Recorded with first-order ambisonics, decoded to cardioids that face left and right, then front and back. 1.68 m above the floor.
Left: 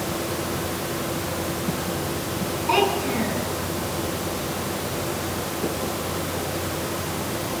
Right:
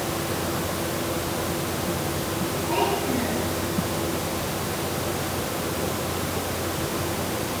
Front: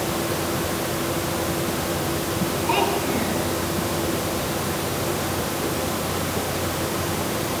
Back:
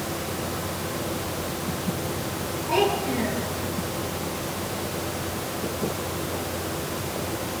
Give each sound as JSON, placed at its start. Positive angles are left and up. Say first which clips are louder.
{"t": 2.7, "sound": "a child speaking", "louder": "left 4 dB, even", "azimuth_deg": 55, "distance_m": 9.5}